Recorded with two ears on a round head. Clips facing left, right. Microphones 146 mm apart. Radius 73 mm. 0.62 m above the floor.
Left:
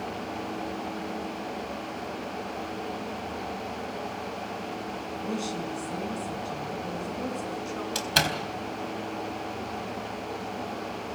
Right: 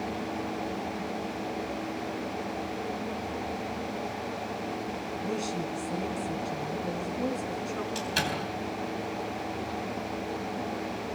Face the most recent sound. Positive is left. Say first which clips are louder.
# left 2 dB
turn(degrees=65)  # may be behind; listen again after turning